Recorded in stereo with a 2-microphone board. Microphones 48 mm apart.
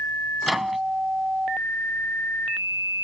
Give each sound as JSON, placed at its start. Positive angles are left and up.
{"t": 0.4, "sound": "a microwave", "side_deg": -5}